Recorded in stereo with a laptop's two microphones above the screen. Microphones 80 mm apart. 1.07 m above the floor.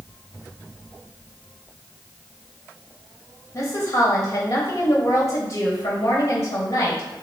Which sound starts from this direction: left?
A woman speaking, at 3.5 s.